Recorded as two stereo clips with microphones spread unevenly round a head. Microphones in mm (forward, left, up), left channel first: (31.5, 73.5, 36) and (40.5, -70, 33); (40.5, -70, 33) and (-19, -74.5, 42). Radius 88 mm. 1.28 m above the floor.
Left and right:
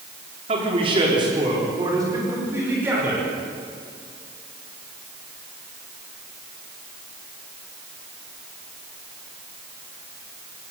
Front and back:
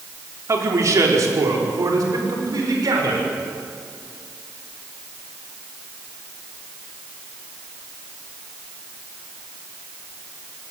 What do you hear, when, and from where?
0.5 s a man speaking: 140° right, 4 m; by 3.3 s 165° right, 6 m